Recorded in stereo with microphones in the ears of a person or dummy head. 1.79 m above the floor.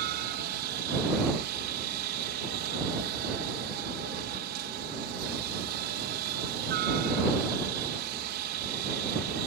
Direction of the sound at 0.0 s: 55° right (ahead or behind).